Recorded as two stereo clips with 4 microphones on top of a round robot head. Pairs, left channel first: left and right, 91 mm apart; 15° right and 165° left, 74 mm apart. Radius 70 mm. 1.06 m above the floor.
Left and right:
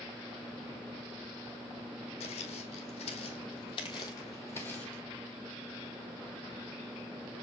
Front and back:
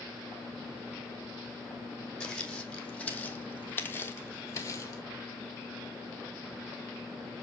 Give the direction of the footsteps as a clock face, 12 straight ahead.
10 o'clock.